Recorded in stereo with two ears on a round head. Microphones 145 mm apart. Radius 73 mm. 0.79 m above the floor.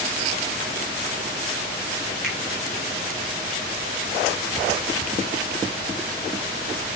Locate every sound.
2.2 s a finger snap: 5° right (ahead or behind), 5 m